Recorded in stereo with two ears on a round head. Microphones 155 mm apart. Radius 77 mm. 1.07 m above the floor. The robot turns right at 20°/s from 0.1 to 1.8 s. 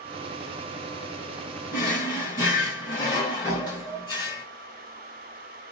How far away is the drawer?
About 2 m.